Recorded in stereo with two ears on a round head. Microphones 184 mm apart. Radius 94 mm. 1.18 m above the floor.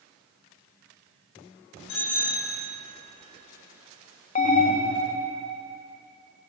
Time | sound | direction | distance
1.9 | a bicycle bell | 70° left (ahead or behind) | 5 m
4.3 | an alarm | 35° left (ahead or behind) | 0.9 m